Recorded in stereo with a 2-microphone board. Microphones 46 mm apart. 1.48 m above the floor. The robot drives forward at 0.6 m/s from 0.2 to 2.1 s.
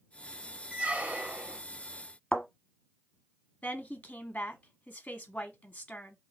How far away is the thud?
About 1.0 m.